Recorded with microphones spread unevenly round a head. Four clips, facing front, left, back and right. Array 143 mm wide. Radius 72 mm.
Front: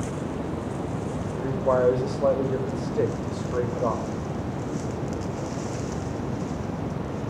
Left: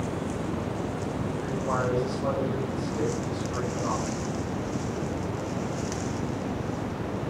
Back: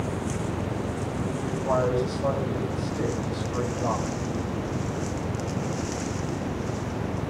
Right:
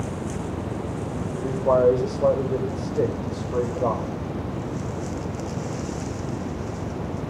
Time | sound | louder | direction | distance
1.4 | a man speaking | right 11 dB, front 4 dB | 55° right | 6.5 m